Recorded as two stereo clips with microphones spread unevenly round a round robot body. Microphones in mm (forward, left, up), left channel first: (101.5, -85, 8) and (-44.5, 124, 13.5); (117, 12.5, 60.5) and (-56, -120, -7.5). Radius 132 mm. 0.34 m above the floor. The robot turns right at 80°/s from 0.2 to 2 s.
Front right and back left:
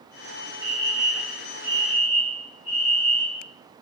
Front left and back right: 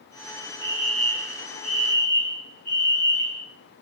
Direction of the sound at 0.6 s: 130° right.